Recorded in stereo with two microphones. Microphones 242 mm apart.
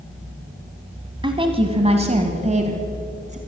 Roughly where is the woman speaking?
Right.